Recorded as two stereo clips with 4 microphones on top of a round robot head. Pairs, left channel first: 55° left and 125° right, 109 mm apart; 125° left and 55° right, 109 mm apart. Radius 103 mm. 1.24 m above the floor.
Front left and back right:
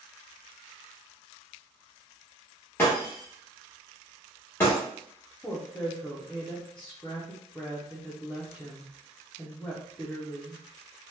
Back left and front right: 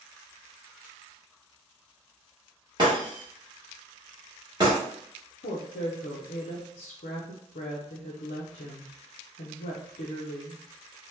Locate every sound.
2.8 s breaking glass: 10° right, 1.0 m
5.4 s a woman speaking: 135° left, 0.5 m